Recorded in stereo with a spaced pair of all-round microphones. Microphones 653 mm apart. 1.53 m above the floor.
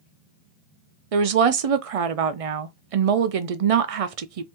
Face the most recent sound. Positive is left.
turn(degrees=-60)  # may be behind; listen again after turning